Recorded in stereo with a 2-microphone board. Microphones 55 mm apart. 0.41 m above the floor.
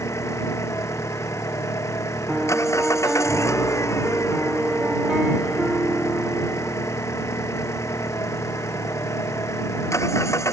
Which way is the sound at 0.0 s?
65° left (ahead or behind).